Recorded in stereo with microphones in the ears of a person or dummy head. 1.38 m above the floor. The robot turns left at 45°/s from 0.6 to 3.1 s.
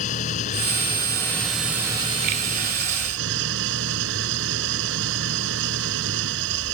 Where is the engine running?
45° left; by 6.7 s 70° right.